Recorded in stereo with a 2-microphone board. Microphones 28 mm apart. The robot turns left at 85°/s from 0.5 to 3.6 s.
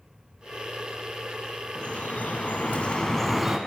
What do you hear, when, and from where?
1.8 s dripping: 145° left, 0.9 m; by 3.6 s 15° right, 0.9 m